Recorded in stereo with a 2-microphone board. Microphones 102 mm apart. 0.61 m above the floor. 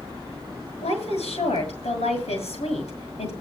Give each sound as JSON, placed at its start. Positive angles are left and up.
{"t": 0.8, "sound": "a woman speaking", "side_deg": 85, "distance_m": 8.0}